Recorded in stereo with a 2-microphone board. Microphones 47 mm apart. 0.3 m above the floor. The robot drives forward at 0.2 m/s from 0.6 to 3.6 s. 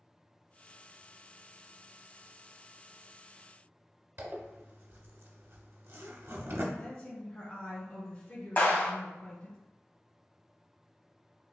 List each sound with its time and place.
4.2 s a zipper: 60° right (ahead or behind), 0.6 m
6.7 s a woman speaking: 25° left (ahead or behind), 1.6 m
8.6 s a clap: 40° left (ahead or behind), 1.3 m